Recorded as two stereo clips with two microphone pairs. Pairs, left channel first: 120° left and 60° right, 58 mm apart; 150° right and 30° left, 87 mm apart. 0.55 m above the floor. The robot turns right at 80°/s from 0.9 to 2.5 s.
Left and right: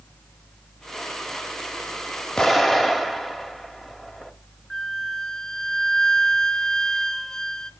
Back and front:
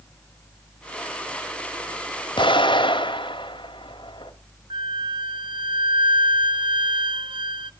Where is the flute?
40° left, 0.6 m.